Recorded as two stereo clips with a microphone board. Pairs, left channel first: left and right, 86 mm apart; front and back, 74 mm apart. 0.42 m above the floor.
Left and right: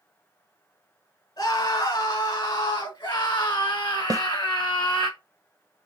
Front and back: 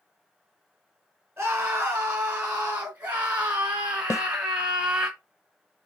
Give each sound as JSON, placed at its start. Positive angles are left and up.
{"t": 1.4, "sound": "a scream", "azimuth_deg": 115, "distance_m": 3.5}
{"t": 4.1, "sound": "a snare drum", "azimuth_deg": -45, "distance_m": 0.6}